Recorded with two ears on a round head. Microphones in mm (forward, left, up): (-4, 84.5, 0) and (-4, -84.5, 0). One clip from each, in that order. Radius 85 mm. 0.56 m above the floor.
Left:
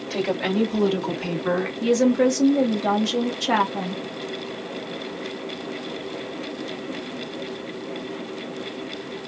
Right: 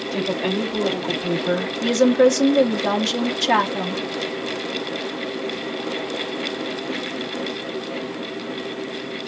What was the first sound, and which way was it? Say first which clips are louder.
A woman speaking: even; 55° left (ahead or behind).